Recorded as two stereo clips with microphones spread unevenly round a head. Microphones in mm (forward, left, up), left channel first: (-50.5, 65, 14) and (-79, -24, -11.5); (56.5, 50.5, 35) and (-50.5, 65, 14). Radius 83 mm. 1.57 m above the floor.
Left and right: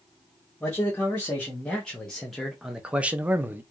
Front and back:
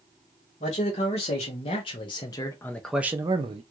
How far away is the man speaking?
About 1.6 m.